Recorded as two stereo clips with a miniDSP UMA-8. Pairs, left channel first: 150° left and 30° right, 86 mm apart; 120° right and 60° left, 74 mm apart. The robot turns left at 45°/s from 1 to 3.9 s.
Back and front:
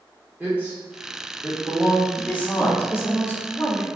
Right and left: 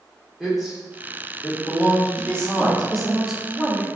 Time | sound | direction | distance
0.4 | a man speaking | 15° right | 1.1 m
2.2 | a woman speaking | 165° right | 0.8 m